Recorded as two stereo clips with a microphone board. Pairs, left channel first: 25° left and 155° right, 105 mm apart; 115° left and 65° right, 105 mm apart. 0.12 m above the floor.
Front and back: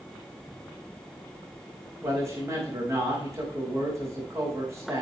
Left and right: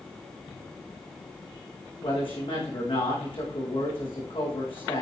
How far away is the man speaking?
About 7 m.